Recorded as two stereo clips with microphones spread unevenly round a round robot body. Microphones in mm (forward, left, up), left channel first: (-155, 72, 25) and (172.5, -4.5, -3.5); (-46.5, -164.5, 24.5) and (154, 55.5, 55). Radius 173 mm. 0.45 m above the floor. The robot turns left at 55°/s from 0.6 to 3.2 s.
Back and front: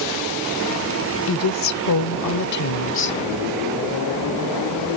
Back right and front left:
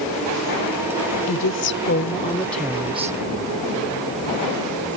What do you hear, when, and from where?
1.3 s a woman speaking: 145° right; by 3.2 s 110° left